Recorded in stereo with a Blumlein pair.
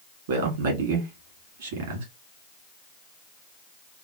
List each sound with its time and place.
0.3 s a man speaking: 60° right, 1.3 m